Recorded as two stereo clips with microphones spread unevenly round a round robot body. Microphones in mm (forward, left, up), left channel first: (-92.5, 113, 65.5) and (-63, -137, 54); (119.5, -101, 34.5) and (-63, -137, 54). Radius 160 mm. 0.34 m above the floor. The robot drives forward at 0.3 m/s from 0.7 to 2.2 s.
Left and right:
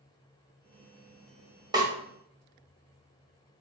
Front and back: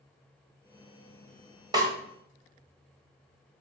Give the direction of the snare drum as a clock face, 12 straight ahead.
4 o'clock.